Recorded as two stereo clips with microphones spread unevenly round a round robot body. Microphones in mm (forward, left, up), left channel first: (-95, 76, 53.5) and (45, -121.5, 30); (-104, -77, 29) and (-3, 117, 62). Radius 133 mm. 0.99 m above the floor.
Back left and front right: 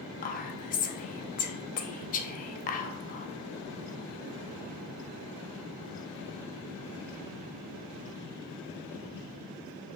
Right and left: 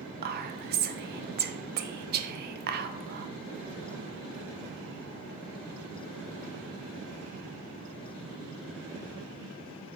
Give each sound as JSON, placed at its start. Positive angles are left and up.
{"t": 0.2, "sound": "whispering", "azimuth_deg": 85, "distance_m": 0.5}